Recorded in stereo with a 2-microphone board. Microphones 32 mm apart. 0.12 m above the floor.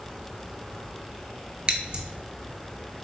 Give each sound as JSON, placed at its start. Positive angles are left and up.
{"t": 1.7, "sound": "scissors", "side_deg": -35, "distance_m": 0.6}